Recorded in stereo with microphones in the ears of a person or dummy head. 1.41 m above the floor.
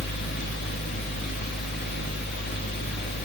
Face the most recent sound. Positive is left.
turn(degrees=50)  # may be behind; listen again after turning